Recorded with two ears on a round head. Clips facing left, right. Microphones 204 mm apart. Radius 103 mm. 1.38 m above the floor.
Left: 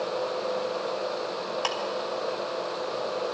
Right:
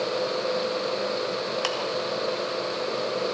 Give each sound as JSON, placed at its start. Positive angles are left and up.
{"t": 1.6, "sound": "ticking", "side_deg": -30, "distance_m": 2.0}